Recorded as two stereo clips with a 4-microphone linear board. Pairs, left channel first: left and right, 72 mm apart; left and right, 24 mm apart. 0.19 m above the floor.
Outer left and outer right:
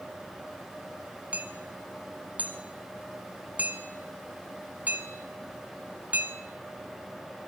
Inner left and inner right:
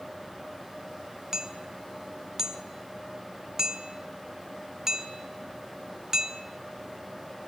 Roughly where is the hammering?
Centre.